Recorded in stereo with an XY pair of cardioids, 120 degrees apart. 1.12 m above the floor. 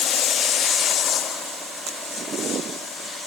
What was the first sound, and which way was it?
Only background noise.